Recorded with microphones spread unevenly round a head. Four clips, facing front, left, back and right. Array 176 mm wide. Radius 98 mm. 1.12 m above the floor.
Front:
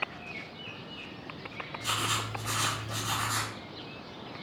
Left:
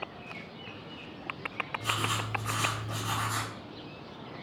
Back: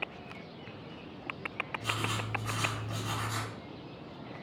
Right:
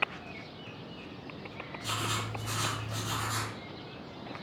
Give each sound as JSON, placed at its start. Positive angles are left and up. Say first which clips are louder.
{"t": 1.8, "sound": "writing", "louder": "left 1 dB, front 4 dB", "azimuth_deg": 95, "distance_m": 1.7}